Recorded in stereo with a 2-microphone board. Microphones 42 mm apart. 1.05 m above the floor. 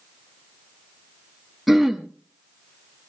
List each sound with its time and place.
1.7 s throat clearing: centre (ahead or behind), 1.3 m